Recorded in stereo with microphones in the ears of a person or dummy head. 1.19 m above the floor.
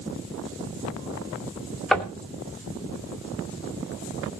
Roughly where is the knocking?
Centre.